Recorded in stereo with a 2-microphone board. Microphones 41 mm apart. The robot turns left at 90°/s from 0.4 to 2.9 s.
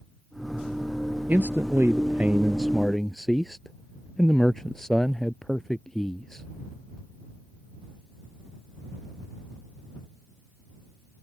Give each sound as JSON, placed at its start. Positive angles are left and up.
{"t": 1.3, "sound": "a man speaking", "azimuth_deg": -50}